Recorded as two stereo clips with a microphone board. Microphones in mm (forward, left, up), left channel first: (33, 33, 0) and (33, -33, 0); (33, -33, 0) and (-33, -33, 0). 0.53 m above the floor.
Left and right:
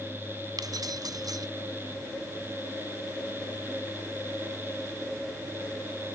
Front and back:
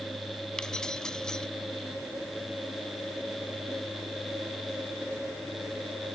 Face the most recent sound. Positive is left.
turn(degrees=-80)